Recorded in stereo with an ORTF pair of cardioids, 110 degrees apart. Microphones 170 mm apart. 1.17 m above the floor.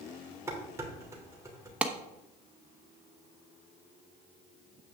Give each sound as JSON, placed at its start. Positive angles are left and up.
{"t": 0.5, "sound": "dishes clattering", "azimuth_deg": -15, "distance_m": 3.0}
{"t": 1.8, "sound": "a clap", "azimuth_deg": -10, "distance_m": 1.0}